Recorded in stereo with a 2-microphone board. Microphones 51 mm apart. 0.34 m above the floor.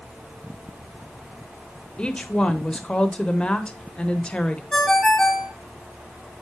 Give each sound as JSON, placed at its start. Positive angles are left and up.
{"t": 2.0, "sound": "a woman speaking", "side_deg": 20, "distance_m": 0.9}
{"t": 4.7, "sound": "a ringtone", "side_deg": 10, "distance_m": 1.4}